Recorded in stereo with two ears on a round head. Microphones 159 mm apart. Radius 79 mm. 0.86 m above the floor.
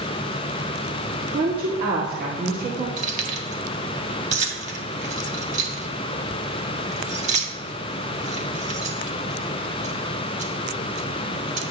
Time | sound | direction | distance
1.3 | a woman speaking | 50° right (ahead or behind) | 1.8 m
3.0 | keys jangling | 40° right (ahead or behind) | 1.3 m